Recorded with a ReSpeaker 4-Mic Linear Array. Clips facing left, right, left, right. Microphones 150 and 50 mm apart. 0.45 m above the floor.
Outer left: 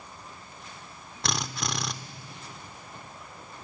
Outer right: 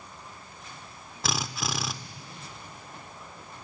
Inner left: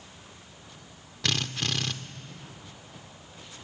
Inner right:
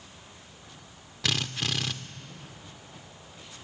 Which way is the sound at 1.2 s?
Centre (ahead or behind).